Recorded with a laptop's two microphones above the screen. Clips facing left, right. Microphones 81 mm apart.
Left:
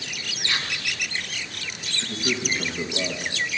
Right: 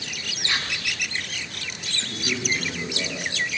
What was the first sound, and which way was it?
Whispering, 20° right (ahead or behind).